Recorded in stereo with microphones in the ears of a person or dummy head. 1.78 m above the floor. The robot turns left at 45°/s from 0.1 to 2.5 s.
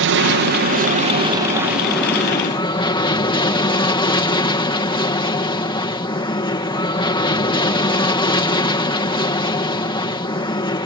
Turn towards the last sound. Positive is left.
turn(degrees=155)